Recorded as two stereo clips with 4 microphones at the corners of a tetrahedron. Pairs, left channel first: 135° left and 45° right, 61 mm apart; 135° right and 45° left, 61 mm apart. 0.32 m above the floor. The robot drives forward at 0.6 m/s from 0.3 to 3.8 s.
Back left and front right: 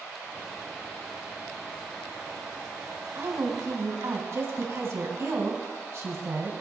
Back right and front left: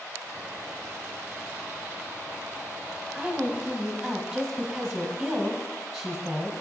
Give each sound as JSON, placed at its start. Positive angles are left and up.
{"t": 3.1, "sound": "a woman speaking", "azimuth_deg": -40, "distance_m": 2.5}